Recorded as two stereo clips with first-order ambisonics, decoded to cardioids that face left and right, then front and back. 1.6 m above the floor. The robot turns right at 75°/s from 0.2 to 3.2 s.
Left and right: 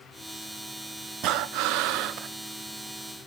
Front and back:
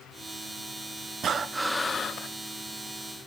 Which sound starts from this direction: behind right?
Breathing, at 1.2 s.